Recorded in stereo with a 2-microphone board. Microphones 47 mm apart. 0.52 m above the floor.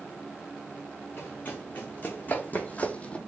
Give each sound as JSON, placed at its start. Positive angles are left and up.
{"t": 1.2, "sound": "running footsteps", "side_deg": 40, "distance_m": 2.0}